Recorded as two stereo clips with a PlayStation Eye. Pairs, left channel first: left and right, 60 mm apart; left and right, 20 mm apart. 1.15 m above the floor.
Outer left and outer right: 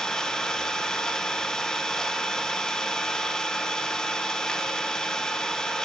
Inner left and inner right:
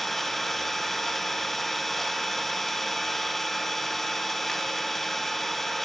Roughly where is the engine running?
Centre.